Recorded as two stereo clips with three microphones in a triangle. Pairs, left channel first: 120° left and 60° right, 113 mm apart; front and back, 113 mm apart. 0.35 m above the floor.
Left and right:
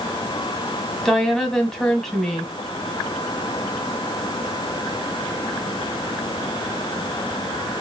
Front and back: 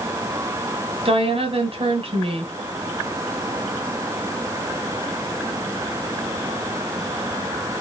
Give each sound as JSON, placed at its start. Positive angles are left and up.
{"t": 1.1, "sound": "a woman speaking", "azimuth_deg": -155, "distance_m": 2.0}